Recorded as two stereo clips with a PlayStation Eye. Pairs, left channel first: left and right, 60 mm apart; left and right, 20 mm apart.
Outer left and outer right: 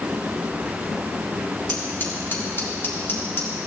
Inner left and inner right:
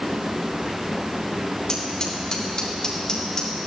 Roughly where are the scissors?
Left.